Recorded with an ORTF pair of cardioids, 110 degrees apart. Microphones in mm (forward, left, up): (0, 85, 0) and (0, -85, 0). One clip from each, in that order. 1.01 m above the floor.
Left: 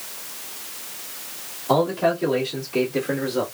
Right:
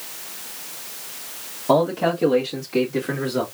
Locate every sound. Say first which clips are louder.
1.7 s a man speaking: right 1 dB; 50° right, 1.5 m; by 3.4 s 75° right, 2 m